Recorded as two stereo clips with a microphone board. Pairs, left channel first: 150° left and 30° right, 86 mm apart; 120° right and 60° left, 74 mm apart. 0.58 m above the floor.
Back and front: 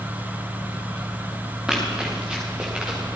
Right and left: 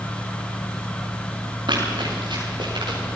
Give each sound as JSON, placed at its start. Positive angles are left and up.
{"t": 1.7, "sound": "running footsteps", "azimuth_deg": 55, "distance_m": 6.5}